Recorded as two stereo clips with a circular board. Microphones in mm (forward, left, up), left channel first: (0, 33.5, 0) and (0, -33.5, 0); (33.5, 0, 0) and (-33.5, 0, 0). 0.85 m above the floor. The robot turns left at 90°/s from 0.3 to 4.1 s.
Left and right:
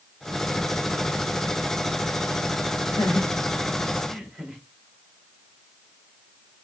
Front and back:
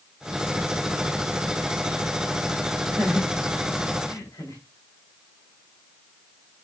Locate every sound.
2.9 s laughter: 95° left, 2.5 m; by 4.6 s 15° right, 2.5 m